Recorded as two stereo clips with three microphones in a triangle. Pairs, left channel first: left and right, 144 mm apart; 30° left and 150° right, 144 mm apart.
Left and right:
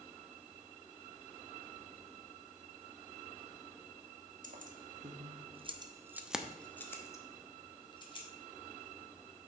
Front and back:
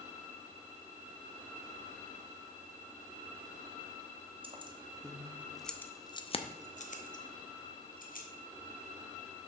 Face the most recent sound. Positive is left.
turn(degrees=35)